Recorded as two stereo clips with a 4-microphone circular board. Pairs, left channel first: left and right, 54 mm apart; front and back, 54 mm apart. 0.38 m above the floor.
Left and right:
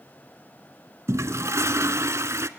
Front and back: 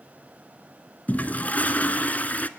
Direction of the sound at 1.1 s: 60° right.